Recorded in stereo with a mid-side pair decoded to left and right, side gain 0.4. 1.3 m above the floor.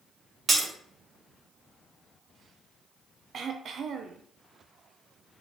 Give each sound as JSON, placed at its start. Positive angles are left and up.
{"t": 0.5, "sound": "breaking glass", "azimuth_deg": -45, "distance_m": 1.3}
{"t": 3.3, "sound": "throat clearing", "azimuth_deg": -60, "distance_m": 0.5}